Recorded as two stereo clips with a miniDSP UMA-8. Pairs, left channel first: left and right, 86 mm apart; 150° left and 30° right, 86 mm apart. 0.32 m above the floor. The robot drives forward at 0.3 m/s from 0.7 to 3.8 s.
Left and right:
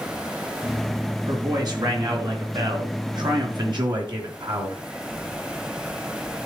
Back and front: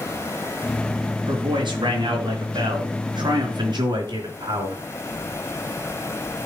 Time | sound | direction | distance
1.3 | a man speaking | 55° right | 4 m